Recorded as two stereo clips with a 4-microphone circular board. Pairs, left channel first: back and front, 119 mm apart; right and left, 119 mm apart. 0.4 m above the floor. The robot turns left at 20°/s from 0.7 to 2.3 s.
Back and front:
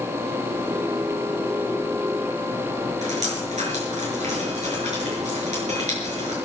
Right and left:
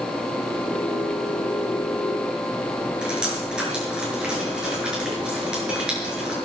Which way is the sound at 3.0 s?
10° left.